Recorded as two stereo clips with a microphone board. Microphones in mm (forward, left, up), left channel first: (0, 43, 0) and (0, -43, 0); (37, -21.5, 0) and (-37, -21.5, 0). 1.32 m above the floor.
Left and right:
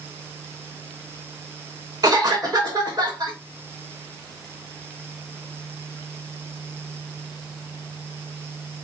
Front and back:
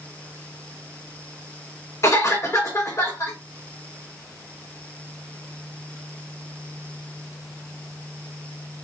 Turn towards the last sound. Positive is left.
turn(degrees=-50)